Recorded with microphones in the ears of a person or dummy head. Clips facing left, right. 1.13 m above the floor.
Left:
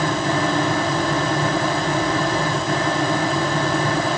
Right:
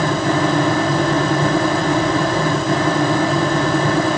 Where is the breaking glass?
No breaking glass in this recording.